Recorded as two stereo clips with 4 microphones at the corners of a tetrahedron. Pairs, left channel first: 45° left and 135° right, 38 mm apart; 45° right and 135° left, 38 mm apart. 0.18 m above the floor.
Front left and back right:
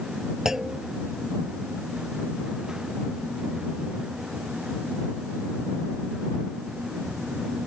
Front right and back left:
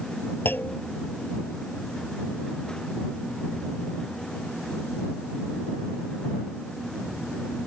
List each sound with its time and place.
0.5 s a clunk: 60° right